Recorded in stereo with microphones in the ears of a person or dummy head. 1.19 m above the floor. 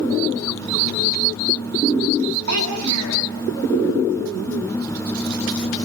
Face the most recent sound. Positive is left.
turn(degrees=-90)